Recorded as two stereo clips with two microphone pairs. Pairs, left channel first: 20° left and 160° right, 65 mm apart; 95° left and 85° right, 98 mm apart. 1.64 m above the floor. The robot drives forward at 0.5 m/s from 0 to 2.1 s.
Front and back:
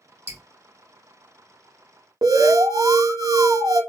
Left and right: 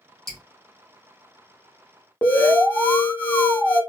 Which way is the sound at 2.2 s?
170° left.